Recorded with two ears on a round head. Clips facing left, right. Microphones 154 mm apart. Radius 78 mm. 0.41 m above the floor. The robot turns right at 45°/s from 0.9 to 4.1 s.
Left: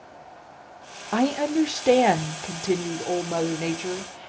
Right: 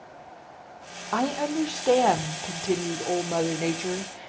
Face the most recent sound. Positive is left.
turn(degrees=-10)  # may be behind; listen again after turning